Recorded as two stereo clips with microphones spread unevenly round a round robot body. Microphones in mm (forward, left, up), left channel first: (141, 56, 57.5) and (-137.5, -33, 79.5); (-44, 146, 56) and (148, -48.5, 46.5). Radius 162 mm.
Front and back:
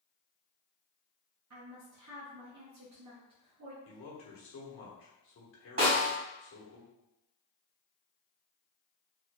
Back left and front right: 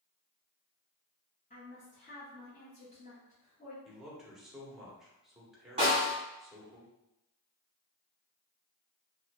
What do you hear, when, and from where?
1.5 s a woman speaking: 165° right, 0.9 m
3.9 s a man speaking: 40° left, 1.1 m
5.8 s a snare drum: 115° right, 1.4 m